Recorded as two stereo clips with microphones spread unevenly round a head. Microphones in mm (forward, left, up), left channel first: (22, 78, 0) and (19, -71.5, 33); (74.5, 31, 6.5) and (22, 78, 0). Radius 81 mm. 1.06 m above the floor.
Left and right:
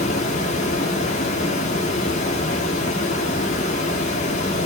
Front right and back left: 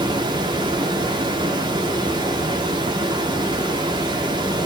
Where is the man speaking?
No man speaking in this recording.